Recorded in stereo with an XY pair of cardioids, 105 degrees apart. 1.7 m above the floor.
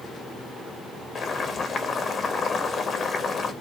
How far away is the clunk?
No clunk in this recording.